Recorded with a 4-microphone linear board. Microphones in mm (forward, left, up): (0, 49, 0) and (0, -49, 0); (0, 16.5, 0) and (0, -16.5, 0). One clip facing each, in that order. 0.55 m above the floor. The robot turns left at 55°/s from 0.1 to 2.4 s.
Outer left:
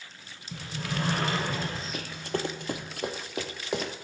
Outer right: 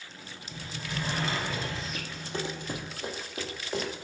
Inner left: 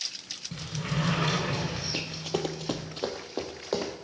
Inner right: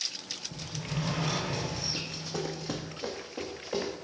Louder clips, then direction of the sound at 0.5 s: Outer left 4 dB, inner left 5 dB; 115° left.